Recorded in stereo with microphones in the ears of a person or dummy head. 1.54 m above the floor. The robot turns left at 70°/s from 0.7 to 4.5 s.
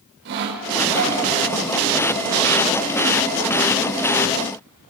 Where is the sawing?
60° right, 5.5 m; by 1.2 s 100° right, 5.5 m.